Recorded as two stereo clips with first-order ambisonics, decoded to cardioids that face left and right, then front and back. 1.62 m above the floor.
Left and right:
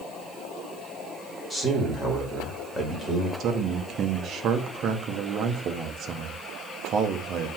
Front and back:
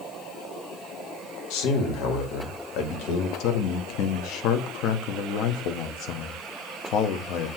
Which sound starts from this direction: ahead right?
A man speaking, at 3.4 s.